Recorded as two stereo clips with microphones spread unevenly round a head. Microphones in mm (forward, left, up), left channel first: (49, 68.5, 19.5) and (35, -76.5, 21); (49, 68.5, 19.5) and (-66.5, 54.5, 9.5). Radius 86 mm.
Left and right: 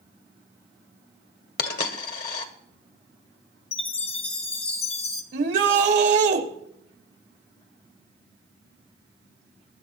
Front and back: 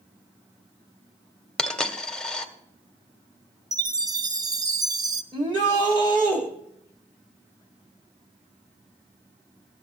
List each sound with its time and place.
1.6 s a dropped coin: 85° left, 1.5 m
3.7 s a chime: 135° left, 1.1 m
5.3 s a shout: 110° right, 2.5 m